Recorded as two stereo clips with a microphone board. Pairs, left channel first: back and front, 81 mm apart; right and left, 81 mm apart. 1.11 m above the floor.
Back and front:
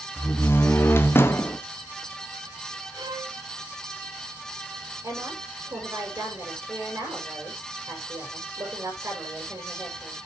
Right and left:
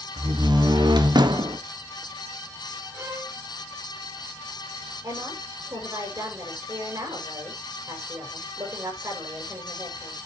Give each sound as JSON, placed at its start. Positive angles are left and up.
{"t": 0.2, "sound": "a door slam", "azimuth_deg": 120, "distance_m": 1.2}
{"t": 2.9, "sound": "a violin", "azimuth_deg": 35, "distance_m": 4.5}
{"t": 5.0, "sound": "a woman speaking", "azimuth_deg": 50, "distance_m": 6.0}